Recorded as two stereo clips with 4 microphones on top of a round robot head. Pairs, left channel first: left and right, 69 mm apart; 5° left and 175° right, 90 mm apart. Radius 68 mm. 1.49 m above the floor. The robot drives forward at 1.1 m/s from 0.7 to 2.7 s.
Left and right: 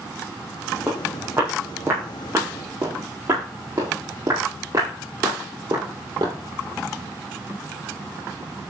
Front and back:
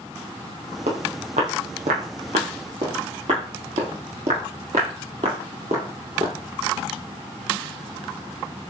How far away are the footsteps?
About 3.5 m.